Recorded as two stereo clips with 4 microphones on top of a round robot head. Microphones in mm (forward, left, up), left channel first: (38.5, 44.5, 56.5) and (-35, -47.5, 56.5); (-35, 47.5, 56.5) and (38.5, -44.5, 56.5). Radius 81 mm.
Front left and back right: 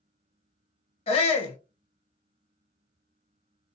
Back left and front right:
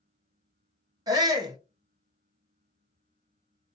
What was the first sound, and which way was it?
A shout, 10° left.